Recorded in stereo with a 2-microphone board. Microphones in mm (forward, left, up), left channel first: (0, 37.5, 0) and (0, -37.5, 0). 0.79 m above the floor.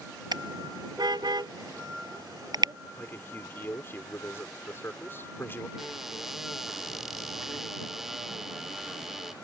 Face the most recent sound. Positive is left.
turn(degrees=-5)  # may be behind; listen again after turning